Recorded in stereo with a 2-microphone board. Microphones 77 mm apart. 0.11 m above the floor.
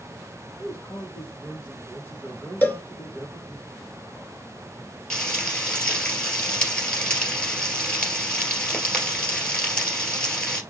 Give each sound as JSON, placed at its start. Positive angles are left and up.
{"t": 0.6, "sound": "a man speaking", "side_deg": 25, "distance_m": 3.5}
{"t": 2.6, "sound": "a cowbell", "side_deg": 30, "distance_m": 0.7}
{"t": 5.1, "sound": "frying", "side_deg": 10, "distance_m": 2.0}